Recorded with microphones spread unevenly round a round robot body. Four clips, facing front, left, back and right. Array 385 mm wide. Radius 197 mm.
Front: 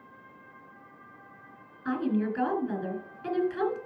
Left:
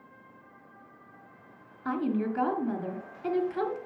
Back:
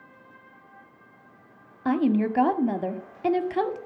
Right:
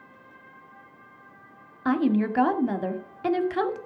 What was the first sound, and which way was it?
A woman speaking, 145° right.